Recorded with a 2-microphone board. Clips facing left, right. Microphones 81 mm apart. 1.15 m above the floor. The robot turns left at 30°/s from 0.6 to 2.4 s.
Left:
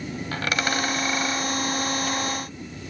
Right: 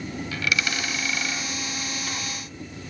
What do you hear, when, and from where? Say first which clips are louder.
0.3 s a dropped coin: left 2 dB; 45° left (ahead or behind), 2.0 m; by 1.5 s 20° left (ahead or behind), 2.0 m